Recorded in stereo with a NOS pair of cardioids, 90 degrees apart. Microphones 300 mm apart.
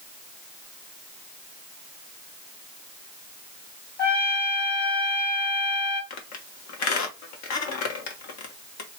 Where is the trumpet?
30° left, 1.9 m.